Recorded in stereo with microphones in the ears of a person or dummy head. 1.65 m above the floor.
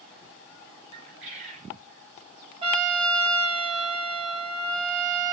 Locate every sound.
0.9 s a bird: 40° right (ahead or behind), 1.5 m
2.6 s a trumpet: 25° right (ahead or behind), 1.4 m